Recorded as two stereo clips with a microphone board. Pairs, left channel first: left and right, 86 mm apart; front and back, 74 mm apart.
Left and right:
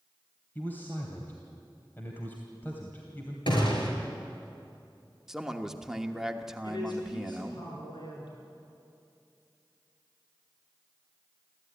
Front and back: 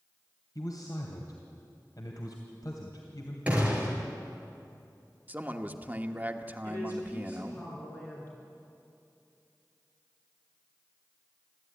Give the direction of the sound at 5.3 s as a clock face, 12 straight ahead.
6 o'clock.